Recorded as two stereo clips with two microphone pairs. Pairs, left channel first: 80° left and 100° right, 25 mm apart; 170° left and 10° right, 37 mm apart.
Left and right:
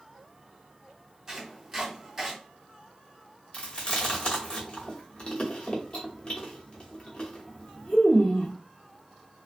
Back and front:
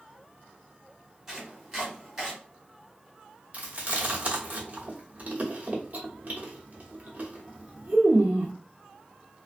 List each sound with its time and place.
1.3 s chopping: 55° right, 1.3 m
3.5 s chewing: 35° left, 0.9 m